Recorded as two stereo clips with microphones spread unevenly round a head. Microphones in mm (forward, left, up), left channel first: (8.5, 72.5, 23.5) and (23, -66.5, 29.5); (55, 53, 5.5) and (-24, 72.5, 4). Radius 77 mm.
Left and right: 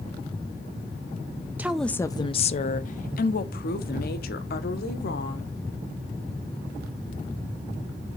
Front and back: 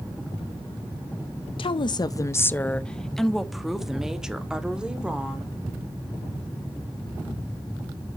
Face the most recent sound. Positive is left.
turn(degrees=90)